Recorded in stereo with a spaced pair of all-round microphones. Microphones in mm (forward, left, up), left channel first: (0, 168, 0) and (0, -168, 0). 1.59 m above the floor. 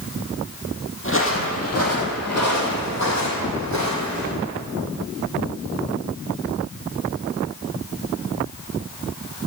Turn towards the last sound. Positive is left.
turn(degrees=55)  # may be behind; listen again after turning